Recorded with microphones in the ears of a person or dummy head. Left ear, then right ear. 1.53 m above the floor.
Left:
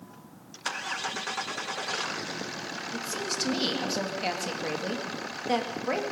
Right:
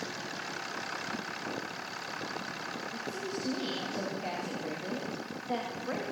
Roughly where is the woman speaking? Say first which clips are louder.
Left 5 dB; left.